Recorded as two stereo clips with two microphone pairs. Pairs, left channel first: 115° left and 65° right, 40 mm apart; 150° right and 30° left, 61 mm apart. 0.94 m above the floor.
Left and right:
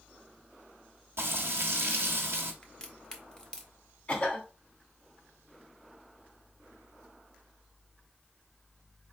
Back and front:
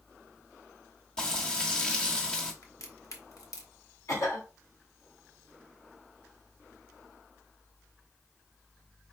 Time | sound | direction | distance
1.2 | frying | 75° right | 1.2 m
2.6 | a crack | 175° right | 1.1 m
4.1 | a cough | straight behind | 1.8 m